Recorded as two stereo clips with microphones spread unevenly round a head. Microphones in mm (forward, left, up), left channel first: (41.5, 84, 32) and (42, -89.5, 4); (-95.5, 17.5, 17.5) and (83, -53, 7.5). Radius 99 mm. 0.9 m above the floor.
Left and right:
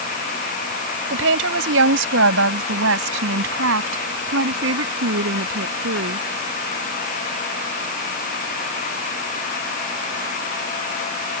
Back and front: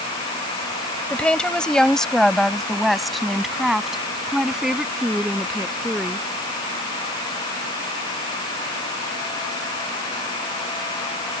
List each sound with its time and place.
1.1 s a woman speaking: 120° right; by 6.3 s 110° right